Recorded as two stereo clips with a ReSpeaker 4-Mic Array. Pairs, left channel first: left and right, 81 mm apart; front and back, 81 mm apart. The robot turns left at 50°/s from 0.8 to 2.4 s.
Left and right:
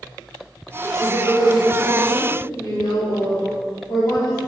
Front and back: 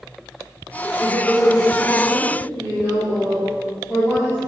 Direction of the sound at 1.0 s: 130° left.